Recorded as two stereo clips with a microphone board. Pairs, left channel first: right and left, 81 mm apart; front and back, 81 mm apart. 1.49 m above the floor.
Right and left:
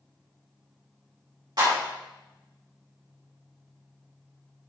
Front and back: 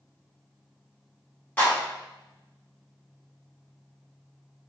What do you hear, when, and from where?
1.6 s a clap: 70° left, 2.0 m